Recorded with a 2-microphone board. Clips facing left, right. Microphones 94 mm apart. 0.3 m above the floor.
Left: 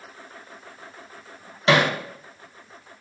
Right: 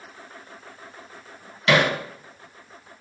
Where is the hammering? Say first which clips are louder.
Even; 30° left (ahead or behind), 0.6 m.